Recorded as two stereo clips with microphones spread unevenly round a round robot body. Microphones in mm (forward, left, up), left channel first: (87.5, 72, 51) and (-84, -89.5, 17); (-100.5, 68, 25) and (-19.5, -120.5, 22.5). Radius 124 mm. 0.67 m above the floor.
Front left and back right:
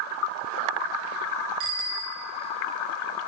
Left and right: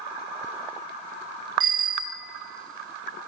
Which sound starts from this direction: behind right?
A bicycle bell, at 1.6 s.